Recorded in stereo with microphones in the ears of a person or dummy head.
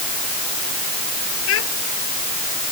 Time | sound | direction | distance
1.5 | a child speaking | 90° left | ?